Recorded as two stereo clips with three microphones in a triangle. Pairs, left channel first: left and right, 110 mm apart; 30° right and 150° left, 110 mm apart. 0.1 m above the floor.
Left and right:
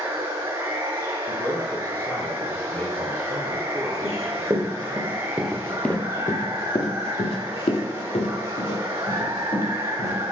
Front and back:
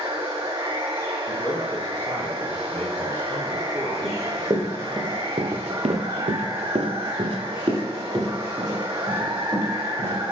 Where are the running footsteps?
140° right, 1.3 m; by 10.2 s 85° left, 2.5 m.